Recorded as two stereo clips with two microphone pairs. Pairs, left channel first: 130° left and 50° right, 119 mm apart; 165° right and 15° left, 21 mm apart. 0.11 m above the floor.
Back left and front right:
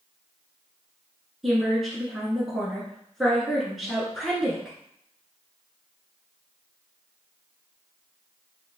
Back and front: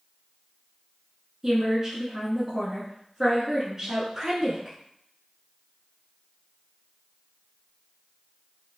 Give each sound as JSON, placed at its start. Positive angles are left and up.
{"t": 1.4, "sound": "a woman speaking", "azimuth_deg": 35, "distance_m": 1.4}